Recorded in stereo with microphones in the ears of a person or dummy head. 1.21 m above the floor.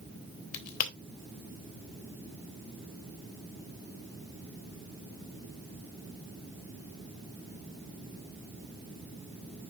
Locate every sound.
0.5 s a crack: 50° left (ahead or behind), 2 m